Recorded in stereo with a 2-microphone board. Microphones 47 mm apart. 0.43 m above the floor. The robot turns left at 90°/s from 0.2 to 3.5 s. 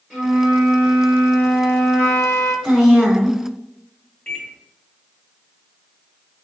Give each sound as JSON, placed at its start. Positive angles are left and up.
{"t": 0.1, "sound": "a flute", "azimuth_deg": -15, "distance_m": 1.8}
{"t": 2.6, "sound": "a woman speaking", "side_deg": 10, "distance_m": 1.4}
{"t": 4.3, "sound": "a microwave", "side_deg": 25, "distance_m": 1.0}